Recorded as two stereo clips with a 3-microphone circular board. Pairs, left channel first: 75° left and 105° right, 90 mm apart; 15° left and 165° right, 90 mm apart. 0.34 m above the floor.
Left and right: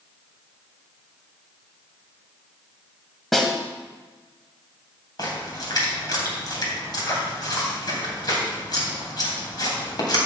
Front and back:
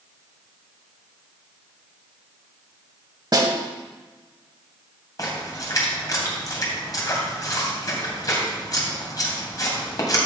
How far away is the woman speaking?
I don't hear a woman speaking.